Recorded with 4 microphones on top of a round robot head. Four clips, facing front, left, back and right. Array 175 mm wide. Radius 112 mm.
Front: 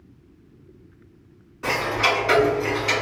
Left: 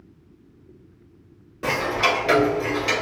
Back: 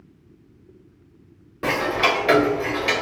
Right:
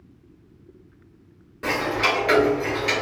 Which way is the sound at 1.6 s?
165° left.